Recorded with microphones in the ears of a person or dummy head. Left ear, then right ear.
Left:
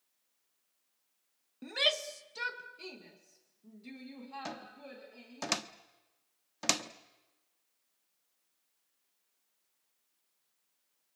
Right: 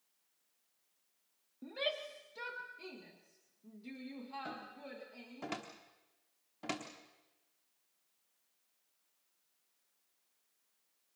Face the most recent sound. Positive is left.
turn(degrees=75)  # may be behind; listen again after turning